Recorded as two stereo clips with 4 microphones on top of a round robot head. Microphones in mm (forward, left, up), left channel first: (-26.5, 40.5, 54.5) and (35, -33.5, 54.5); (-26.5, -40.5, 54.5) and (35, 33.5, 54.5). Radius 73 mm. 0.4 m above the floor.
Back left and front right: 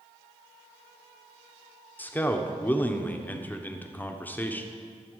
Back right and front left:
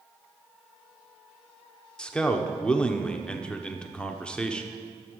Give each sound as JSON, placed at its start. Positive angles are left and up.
{"t": 2.0, "sound": "a man speaking", "azimuth_deg": 165, "distance_m": 1.1}